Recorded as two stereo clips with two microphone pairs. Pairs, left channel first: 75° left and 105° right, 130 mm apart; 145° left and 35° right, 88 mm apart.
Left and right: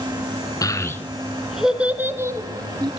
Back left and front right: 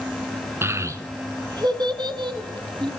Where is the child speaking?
20° left, 1.3 m; by 2.9 s 50° right, 1.7 m.